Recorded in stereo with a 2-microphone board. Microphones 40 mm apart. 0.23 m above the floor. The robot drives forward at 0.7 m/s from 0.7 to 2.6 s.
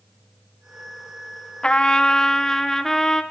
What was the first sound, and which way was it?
A trumpet, 30° left (ahead or behind).